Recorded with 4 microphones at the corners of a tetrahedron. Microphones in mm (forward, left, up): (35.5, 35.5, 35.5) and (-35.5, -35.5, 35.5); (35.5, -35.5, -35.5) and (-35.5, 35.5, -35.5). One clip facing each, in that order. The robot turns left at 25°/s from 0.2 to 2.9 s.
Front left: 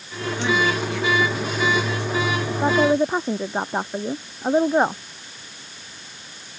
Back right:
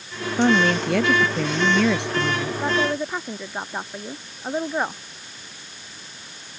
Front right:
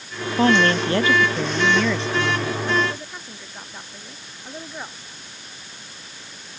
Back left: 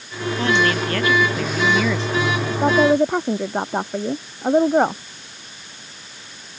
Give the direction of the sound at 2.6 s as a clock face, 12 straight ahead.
8 o'clock.